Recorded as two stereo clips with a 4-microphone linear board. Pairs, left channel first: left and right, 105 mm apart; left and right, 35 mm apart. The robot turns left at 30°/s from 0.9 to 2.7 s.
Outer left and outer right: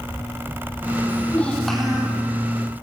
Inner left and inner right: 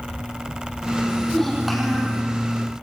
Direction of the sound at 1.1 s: 20° left.